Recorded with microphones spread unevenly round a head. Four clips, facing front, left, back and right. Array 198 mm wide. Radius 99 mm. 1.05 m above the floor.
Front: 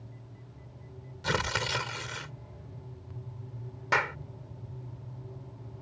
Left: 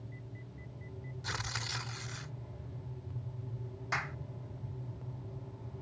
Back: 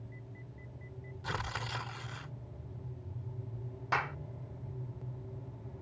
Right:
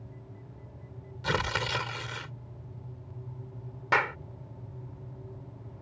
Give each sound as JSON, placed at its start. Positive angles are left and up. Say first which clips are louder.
{"t": 1.2, "sound": "tearing paper", "louder": "right 12 dB, front 8 dB", "azimuth_deg": -45}
{"t": 3.9, "sound": "a clap", "louder": "right 11 dB, front 5 dB", "azimuth_deg": -55}